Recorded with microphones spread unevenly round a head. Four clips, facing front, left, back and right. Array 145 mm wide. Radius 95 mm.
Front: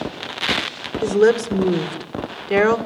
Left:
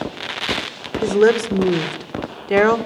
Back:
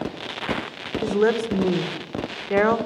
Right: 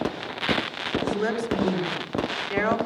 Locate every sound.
1.0 s a woman speaking: 65° left, 2 m